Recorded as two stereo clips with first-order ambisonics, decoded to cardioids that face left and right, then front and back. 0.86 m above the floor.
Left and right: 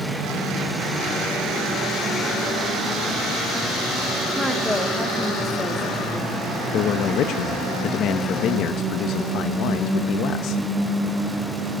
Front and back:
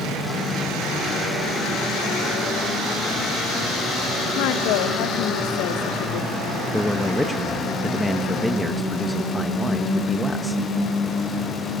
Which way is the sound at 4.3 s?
5° left.